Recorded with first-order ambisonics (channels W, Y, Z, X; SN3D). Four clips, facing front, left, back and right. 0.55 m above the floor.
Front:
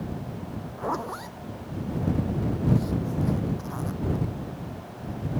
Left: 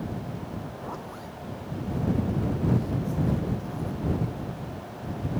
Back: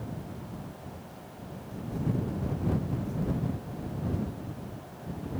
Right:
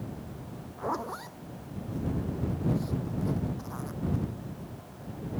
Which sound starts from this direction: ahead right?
A zipper, at 0.8 s.